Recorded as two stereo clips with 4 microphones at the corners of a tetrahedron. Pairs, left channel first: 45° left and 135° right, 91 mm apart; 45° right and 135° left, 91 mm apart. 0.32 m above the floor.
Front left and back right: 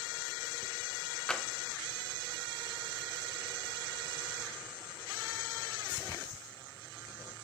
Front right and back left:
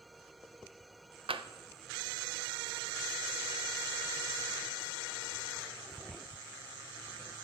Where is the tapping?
130° left, 0.6 m.